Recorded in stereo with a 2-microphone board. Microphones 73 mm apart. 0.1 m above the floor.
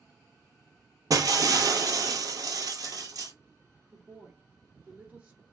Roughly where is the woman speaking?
Centre.